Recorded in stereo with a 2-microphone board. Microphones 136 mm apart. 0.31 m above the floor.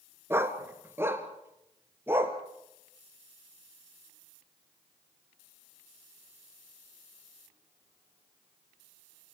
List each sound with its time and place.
0.3 s a dog barking: 20° right (ahead or behind), 1.5 m; by 2.4 s 15° right (ahead or behind), 2.5 m